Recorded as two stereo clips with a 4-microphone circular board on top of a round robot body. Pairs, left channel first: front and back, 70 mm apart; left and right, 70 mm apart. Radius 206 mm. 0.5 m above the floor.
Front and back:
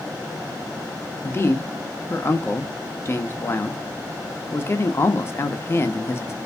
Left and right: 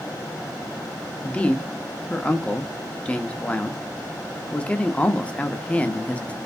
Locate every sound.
1.2 s a man speaking: 30° left, 0.9 m